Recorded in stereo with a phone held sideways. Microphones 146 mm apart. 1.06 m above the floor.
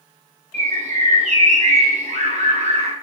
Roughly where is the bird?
Right.